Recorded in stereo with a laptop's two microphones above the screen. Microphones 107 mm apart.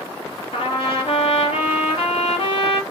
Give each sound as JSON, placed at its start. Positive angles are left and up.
{"t": 0.5, "sound": "a trumpet", "side_deg": 65, "distance_m": 2.0}